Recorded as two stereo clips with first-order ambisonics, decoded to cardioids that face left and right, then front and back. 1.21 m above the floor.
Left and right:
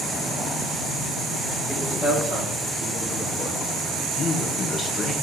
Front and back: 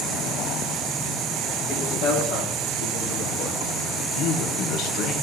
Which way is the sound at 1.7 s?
Straight ahead.